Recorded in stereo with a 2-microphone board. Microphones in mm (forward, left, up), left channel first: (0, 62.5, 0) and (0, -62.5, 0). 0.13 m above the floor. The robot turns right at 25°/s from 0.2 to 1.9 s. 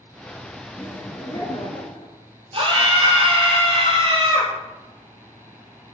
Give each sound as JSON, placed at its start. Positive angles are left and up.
{"t": 0.8, "sound": "laughter", "side_deg": 25, "distance_m": 2.0}
{"t": 2.5, "sound": "a scream", "side_deg": -45, "distance_m": 3.5}